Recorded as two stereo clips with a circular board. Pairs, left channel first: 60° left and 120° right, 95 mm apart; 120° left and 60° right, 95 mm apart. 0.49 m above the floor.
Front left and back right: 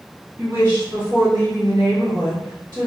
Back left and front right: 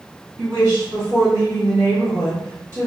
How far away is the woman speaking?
About 1.8 m.